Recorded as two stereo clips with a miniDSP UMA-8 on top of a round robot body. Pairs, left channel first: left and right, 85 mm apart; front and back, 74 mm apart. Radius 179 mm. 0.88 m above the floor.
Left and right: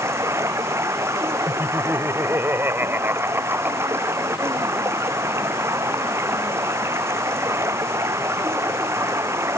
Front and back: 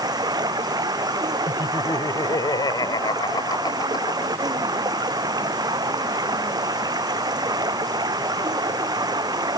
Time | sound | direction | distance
0.0 | running water | 150° right | ?
1.5 | laughter | 25° right | ?